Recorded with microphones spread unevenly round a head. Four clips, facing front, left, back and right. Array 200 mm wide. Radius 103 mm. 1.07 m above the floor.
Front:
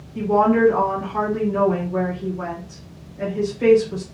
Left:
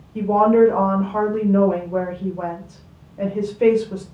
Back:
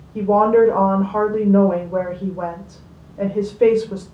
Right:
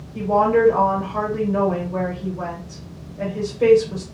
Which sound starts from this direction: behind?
A woman speaking, at 0.1 s.